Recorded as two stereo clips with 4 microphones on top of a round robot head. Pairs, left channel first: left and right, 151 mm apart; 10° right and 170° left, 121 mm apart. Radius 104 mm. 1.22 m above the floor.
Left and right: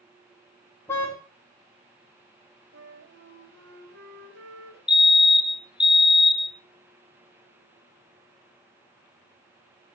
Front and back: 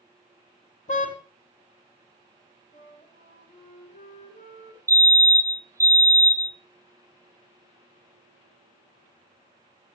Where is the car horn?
10° left, 4.5 m.